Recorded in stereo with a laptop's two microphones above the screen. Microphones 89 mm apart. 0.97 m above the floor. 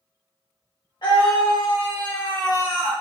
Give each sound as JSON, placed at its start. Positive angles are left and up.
{"t": 1.0, "sound": "a scream", "side_deg": 60, "distance_m": 1.4}